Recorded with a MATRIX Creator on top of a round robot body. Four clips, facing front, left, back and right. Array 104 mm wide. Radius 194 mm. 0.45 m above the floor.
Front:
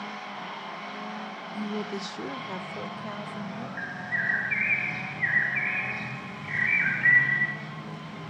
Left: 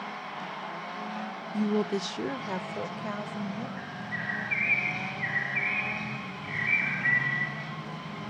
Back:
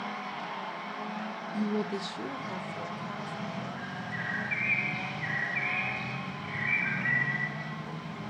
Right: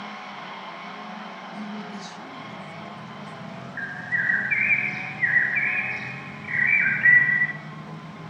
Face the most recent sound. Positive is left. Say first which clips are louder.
# right 7 dB, front 4 dB
turn(degrees=-70)